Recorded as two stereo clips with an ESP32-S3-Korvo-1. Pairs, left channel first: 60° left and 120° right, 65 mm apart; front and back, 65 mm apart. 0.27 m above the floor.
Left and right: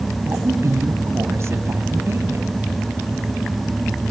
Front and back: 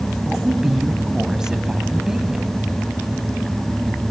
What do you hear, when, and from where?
0.2 s a woman speaking: 100° right, 1.9 m